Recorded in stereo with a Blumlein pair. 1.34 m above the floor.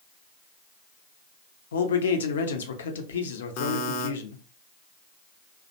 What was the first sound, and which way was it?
A man speaking, 60° left.